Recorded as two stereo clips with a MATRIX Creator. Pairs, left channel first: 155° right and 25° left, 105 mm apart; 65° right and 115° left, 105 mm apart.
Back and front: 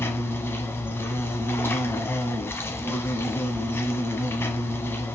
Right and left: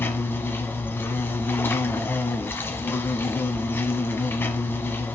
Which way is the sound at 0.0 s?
115° right.